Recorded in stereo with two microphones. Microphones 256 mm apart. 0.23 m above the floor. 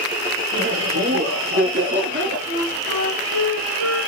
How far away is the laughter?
About 4.5 m.